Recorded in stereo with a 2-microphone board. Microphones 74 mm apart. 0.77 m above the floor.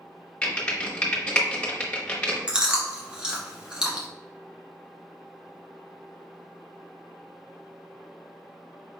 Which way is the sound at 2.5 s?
10° right (ahead or behind).